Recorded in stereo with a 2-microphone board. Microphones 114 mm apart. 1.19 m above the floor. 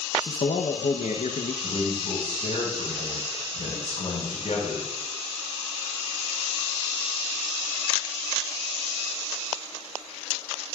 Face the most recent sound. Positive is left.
turn(degrees=60)  # may be behind; listen again after turning